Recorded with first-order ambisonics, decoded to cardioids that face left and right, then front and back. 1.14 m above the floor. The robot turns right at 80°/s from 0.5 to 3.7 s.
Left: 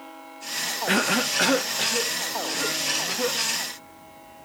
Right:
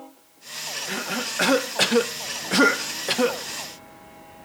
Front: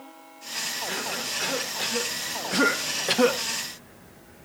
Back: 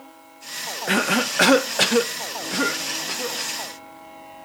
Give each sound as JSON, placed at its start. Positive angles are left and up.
{"t": 0.9, "sound": "a cough", "azimuth_deg": 140, "distance_m": 0.7}